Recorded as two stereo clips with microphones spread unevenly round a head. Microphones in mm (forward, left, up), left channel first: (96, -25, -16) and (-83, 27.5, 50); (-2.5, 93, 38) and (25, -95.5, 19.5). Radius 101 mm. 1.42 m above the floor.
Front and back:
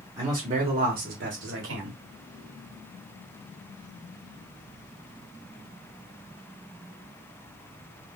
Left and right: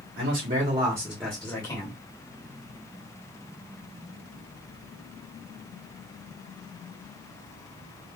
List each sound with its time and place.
0.2 s a man speaking: 125° right, 1.2 m; by 2.0 s 160° left, 1.3 m